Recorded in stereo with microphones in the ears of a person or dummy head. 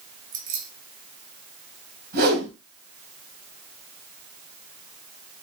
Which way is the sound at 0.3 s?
40° right (ahead or behind).